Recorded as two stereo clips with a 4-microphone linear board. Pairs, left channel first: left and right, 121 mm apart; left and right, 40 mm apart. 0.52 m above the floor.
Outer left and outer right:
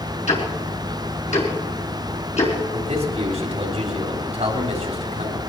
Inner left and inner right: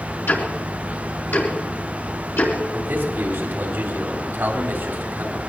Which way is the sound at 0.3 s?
70° left (ahead or behind).